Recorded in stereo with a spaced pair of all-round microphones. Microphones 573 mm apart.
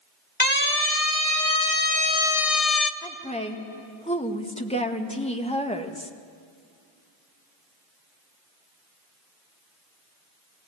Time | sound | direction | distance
0.4 | a siren | 15° left (ahead or behind) | 2.5 m
3.0 | a woman speaking | 10° left (ahead or behind) | 1.8 m